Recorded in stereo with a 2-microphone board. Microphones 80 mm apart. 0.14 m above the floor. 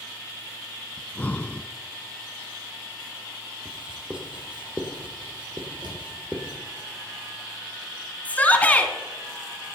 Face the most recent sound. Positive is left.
turn(degrees=20)  # may be behind; listen again after turning